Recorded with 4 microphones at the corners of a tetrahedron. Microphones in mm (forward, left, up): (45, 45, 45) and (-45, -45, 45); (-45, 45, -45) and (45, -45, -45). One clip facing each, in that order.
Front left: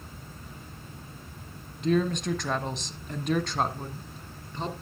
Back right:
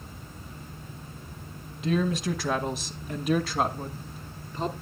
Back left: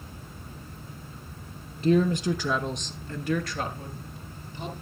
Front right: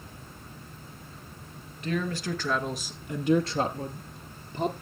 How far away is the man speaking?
About 1.2 m.